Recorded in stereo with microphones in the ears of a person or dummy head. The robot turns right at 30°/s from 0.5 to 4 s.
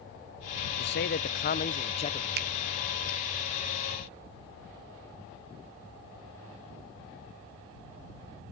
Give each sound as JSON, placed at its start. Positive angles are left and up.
{"t": 0.8, "sound": "a man speaking", "azimuth_deg": 105}
{"t": 2.4, "sound": "a finger snap", "side_deg": -65}